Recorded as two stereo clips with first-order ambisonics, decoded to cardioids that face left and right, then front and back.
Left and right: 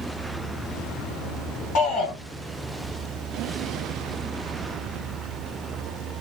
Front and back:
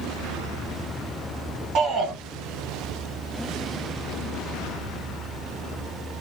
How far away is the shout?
About 1.7 m.